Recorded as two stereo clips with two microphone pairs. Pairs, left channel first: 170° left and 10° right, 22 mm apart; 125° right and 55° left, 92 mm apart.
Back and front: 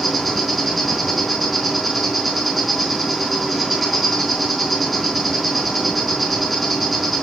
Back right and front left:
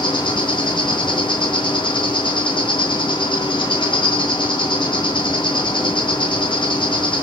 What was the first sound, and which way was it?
An insect, 100° right.